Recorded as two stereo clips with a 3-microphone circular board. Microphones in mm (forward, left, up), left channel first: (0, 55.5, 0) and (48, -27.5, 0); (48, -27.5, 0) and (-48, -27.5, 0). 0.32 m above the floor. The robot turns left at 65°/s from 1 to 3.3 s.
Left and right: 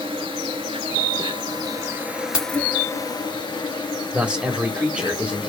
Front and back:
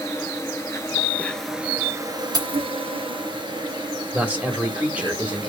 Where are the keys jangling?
135° right, 1.9 m; by 2.6 s 155° right, 1.9 m.